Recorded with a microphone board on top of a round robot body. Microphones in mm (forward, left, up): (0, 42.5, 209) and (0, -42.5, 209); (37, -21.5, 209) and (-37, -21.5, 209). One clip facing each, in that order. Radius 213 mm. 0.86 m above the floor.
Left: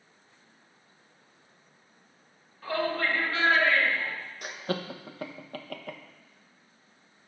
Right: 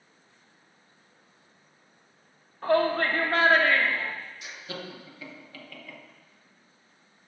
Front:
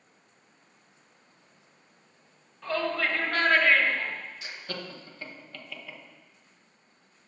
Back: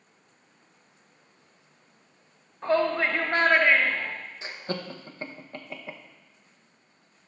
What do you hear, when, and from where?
2.6 s a shout: 130° right, 1.9 m; by 4.1 s 105° right, 2 m
4.4 s laughter: 125° left, 1.1 m